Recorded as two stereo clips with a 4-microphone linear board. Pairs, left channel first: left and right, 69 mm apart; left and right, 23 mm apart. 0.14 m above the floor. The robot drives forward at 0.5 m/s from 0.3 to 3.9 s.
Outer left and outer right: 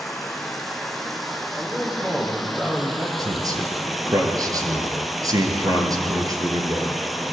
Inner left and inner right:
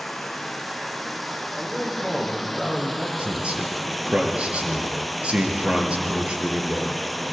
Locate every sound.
0.0 s running water: centre (ahead or behind), 3 m; by 7.3 s 5° right (ahead or behind), 1.3 m
1.6 s a man speaking: 10° right (ahead or behind), 6.5 m
3.2 s a man speaking: 60° right (ahead or behind), 3 m